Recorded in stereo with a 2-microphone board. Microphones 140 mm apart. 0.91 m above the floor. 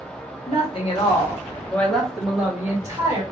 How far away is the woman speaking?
About 1.2 m.